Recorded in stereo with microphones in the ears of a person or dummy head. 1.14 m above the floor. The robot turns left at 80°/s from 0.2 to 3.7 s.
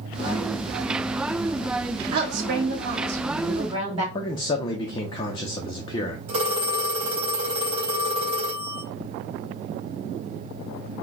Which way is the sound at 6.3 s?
25° right (ahead or behind).